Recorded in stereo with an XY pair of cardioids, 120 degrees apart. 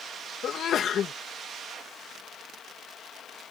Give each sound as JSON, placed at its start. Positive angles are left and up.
{"t": 0.4, "sound": "a sneeze", "azimuth_deg": 55}